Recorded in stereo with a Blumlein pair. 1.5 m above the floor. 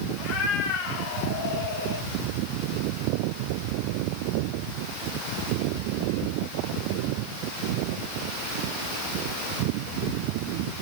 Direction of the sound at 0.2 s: 40° left.